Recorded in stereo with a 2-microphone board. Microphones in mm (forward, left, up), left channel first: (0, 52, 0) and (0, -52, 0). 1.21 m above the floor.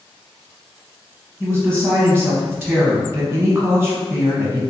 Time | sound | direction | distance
1.4 | a woman speaking | 10° right (ahead or behind) | 0.8 m